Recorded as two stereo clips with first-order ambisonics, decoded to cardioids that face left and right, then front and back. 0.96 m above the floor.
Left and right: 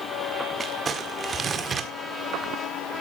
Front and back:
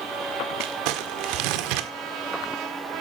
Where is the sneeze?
No sneeze in this recording.